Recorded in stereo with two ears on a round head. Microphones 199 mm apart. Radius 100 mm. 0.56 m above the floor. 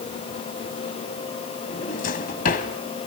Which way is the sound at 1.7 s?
40° left (ahead or behind).